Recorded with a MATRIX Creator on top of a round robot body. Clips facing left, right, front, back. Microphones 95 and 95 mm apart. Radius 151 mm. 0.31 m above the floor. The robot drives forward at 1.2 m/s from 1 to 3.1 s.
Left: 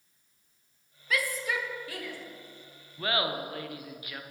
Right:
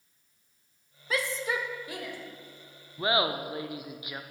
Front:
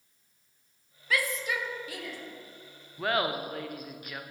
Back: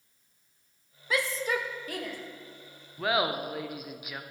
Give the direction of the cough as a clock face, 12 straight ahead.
I don't hear a cough.